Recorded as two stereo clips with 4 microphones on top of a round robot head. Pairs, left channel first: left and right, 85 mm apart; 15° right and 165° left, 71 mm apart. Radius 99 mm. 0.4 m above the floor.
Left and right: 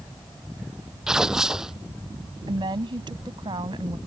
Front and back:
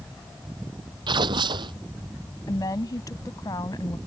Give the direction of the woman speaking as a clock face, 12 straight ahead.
2 o'clock.